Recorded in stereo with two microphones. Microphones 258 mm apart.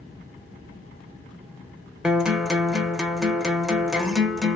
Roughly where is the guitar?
Centre.